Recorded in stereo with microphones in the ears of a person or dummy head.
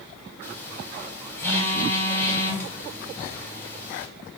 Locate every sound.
0.4 s a phone buzzing: 15° left (ahead or behind), 1.4 m